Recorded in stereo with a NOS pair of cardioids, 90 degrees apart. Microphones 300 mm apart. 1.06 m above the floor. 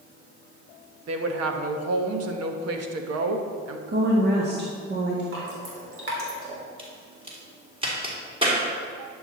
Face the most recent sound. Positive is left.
turn(degrees=-20)